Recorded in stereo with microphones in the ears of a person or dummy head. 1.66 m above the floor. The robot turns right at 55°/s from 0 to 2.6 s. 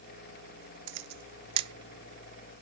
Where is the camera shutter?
70° right (ahead or behind), 0.7 m; by 1.7 s 25° right (ahead or behind), 0.7 m.